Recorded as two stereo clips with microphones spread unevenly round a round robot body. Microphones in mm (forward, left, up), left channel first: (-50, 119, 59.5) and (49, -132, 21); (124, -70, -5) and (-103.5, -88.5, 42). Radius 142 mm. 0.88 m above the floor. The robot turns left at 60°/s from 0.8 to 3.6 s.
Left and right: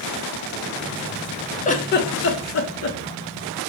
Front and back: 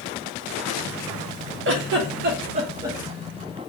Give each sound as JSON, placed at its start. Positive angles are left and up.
{"t": 1.6, "sound": "a giggle", "azimuth_deg": 175, "distance_m": 0.9}